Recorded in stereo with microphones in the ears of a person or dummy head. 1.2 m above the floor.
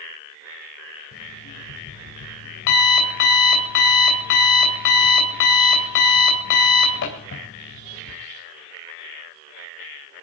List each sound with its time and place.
1.1 s an alarm clock: 60° left (ahead or behind), 3 m